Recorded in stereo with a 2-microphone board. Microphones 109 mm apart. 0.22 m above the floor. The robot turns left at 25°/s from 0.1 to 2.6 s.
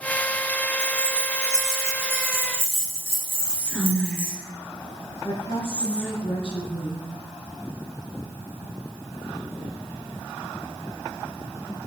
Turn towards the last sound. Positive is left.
turn(degrees=45)  # may be behind; listen again after turning